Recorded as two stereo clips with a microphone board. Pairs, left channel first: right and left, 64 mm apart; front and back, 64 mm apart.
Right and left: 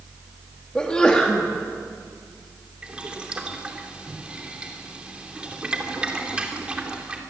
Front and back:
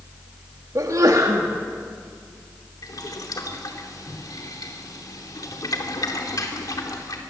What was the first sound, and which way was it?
A sneeze, 165° right.